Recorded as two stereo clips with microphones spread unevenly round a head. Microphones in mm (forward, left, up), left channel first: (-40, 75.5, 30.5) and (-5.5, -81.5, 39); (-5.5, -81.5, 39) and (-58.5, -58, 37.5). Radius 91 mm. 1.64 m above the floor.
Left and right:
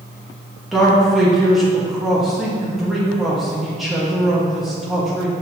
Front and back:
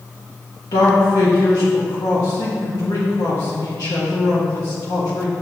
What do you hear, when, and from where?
0.7 s a man speaking: 10° left, 1.4 m